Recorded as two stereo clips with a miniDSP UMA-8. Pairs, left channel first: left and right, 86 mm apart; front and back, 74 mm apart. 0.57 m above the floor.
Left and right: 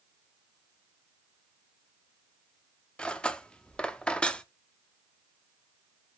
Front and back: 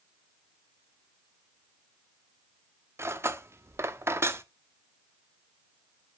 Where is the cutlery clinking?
160° left, 0.6 m.